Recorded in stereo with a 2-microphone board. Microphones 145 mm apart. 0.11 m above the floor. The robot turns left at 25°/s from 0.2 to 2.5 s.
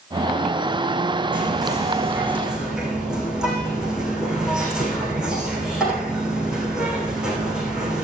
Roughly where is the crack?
No crack in this recording.